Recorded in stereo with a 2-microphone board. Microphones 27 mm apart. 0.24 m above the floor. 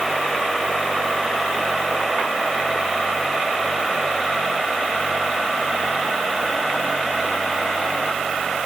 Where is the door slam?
I don't hear a door slam.